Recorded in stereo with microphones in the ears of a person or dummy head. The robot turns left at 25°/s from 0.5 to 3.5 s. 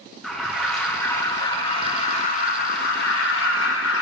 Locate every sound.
0.2 s an alarm: straight behind, 2 m; by 4.0 s 105° left, 2 m